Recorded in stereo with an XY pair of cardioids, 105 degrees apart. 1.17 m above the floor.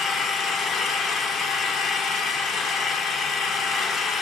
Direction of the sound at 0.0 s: 70° left.